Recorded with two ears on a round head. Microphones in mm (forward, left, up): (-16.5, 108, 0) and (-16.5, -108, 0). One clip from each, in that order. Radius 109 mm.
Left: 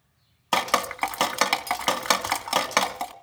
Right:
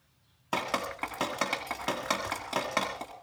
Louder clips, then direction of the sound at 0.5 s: Left 8 dB; 60° left (ahead or behind).